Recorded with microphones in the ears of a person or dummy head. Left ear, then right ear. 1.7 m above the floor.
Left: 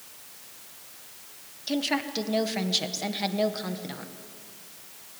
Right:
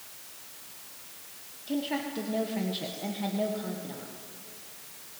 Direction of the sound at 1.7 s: 50° left (ahead or behind).